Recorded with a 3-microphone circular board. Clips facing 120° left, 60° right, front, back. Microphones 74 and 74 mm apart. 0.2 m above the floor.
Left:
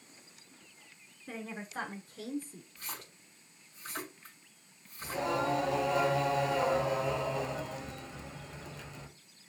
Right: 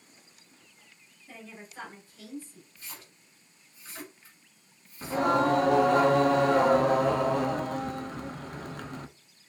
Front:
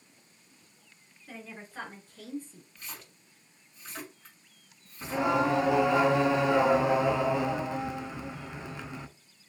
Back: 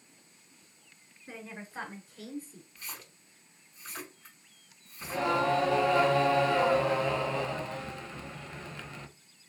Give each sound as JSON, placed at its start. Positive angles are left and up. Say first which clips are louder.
{"t": 1.3, "sound": "a woman speaking", "louder": "left 5 dB, back 1 dB", "azimuth_deg": 115, "distance_m": 3.0}
{"t": 2.8, "sound": "a splash", "louder": "left 3 dB, even", "azimuth_deg": 95, "distance_m": 3.5}
{"t": 5.0, "sound": "singing", "louder": "right 8 dB, front 2 dB", "azimuth_deg": -70, "distance_m": 0.7}